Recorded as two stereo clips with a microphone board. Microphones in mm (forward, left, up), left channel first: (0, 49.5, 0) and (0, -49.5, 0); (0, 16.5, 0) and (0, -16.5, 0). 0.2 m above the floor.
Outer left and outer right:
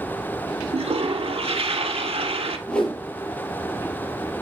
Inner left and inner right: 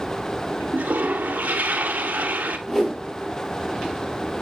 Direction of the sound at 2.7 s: 10° left (ahead or behind).